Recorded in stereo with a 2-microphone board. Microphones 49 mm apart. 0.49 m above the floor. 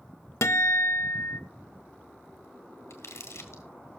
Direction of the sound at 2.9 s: 75° left (ahead or behind).